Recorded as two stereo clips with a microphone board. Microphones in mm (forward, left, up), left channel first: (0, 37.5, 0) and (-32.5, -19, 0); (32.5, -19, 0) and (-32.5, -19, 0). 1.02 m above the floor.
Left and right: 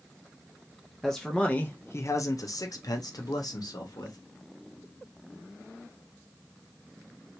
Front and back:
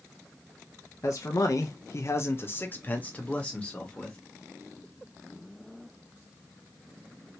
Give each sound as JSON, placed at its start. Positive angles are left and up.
{"t": 1.0, "sound": "a man speaking", "azimuth_deg": -30, "distance_m": 0.7}